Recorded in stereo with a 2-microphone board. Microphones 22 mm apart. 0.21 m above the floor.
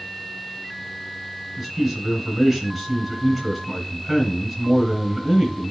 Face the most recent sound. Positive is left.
turn(degrees=-15)  # may be behind; listen again after turning